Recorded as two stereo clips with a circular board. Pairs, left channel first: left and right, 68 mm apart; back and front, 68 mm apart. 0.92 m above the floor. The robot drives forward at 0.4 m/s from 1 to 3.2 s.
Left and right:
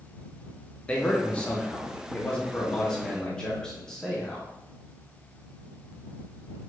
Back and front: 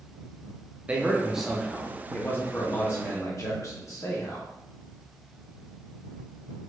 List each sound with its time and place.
0.9 s a man speaking: 40° left, 0.6 m; by 4.5 s 165° left, 0.9 m